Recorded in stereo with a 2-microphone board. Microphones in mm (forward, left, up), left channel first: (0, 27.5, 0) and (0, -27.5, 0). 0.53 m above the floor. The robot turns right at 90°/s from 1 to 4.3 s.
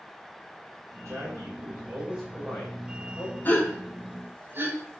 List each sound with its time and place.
1.1 s a man speaking: 120° right, 3 m; by 3.4 s 90° left, 3 m
3.5 s a gasp: 35° left (ahead or behind), 1.4 m; by 4.8 s 40° right (ahead or behind), 1.4 m